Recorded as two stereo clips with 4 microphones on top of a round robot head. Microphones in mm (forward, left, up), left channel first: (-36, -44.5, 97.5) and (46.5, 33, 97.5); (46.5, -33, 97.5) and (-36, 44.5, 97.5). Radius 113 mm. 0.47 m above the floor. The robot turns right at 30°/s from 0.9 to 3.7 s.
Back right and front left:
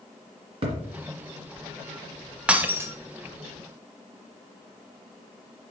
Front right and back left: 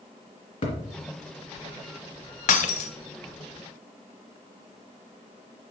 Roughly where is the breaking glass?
Ahead right.